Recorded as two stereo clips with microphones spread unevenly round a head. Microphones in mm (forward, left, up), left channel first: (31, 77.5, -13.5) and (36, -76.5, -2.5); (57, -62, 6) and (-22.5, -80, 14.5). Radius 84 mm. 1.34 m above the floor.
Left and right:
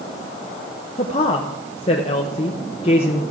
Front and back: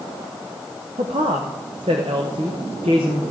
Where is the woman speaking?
150° left, 0.7 m.